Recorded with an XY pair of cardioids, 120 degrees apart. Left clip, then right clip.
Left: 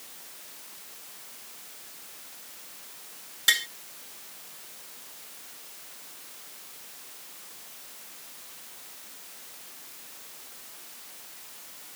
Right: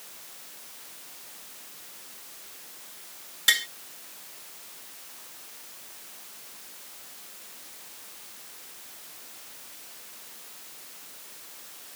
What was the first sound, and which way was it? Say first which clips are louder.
Tapping: right 1 dB; 5° right.